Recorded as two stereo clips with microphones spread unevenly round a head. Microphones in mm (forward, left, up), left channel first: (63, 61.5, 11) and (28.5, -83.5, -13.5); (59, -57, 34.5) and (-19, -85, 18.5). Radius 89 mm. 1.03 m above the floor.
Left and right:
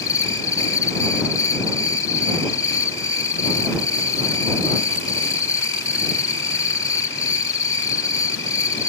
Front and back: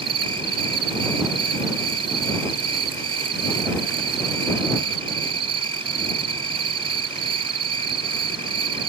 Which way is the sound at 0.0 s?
150° left.